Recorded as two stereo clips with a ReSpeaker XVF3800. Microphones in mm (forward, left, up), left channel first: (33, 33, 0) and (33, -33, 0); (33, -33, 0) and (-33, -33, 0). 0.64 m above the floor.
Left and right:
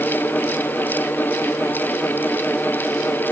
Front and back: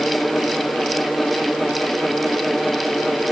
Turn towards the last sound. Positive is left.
No sound to turn to.